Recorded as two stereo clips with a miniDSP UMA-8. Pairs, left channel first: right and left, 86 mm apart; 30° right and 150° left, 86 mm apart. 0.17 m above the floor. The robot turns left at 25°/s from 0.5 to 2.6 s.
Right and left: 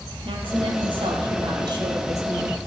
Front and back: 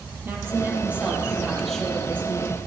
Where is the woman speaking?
90° left, 4 m; by 2.6 s 35° left, 4 m.